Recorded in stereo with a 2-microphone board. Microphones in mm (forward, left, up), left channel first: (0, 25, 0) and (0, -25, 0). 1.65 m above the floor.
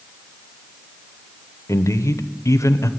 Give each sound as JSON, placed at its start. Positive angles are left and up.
{"t": 1.7, "sound": "a man speaking", "side_deg": 75, "distance_m": 1.0}